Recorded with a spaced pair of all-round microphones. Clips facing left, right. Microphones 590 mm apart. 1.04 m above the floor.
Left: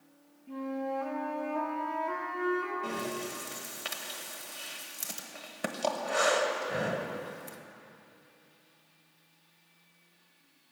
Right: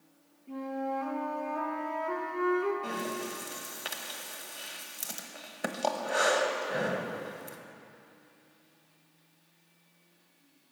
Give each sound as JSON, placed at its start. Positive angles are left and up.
{"t": 0.5, "sound": "a flute", "side_deg": 20, "distance_m": 1.4}
{"t": 2.8, "sound": "breathing", "side_deg": 30, "distance_m": 0.9}